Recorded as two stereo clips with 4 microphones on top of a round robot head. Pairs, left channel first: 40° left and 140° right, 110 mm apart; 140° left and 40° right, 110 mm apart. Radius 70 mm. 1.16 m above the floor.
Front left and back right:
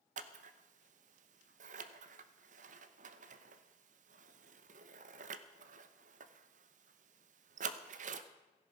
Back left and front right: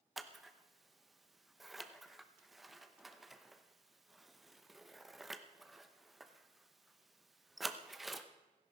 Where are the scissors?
130° right, 0.8 m.